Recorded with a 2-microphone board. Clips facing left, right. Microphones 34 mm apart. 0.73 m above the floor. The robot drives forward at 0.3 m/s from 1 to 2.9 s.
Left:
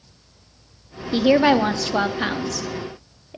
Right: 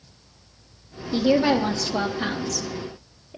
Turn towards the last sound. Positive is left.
turn(degrees=25)  # may be behind; listen again after turning